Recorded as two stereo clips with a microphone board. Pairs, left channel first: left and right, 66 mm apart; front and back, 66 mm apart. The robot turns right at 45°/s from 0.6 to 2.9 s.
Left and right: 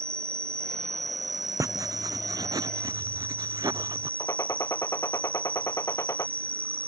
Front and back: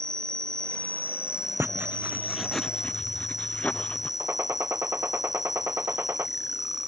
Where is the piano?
No piano in this recording.